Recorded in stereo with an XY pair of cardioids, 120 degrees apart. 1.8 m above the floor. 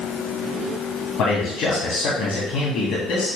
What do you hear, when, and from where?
1.2 s a man speaking: 65° left, 2.5 m